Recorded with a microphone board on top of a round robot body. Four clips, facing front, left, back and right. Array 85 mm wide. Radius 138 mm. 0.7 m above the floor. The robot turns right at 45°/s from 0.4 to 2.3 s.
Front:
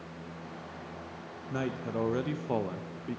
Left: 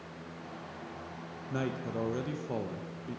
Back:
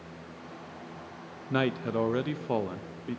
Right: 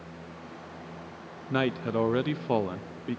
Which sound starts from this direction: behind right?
A man speaking, at 1.5 s.